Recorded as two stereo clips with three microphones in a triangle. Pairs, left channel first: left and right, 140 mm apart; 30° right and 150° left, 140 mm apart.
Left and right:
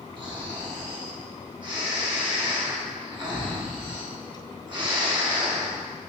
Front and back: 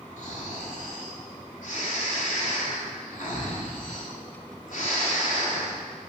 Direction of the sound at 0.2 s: 40° right.